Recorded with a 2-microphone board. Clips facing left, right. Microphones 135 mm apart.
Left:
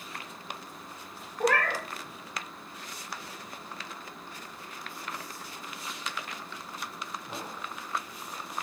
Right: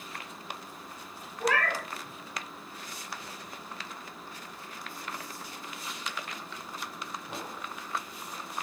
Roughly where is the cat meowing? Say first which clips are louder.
Left 2 dB; left.